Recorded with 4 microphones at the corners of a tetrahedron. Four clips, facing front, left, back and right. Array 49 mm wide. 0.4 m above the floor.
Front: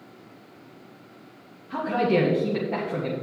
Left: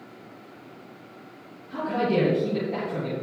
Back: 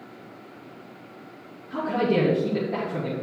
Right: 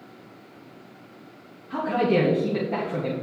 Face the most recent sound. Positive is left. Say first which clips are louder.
# right 2 dB, front 1 dB
turn(degrees=-45)